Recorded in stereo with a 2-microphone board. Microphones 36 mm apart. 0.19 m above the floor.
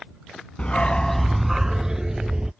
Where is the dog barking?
30° left (ahead or behind); by 2.5 s 20° right (ahead or behind).